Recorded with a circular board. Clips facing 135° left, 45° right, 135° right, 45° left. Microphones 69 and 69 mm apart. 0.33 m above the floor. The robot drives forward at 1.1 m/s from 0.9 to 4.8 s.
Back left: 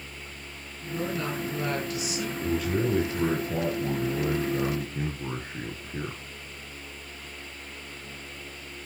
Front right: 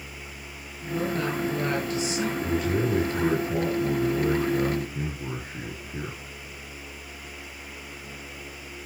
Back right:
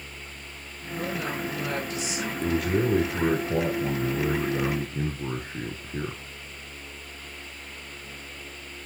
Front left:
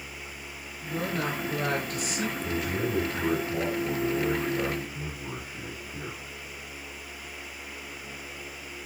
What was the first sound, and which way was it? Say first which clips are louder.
A woman speaking: front right 3 dB, front left 1 dB; 15° left.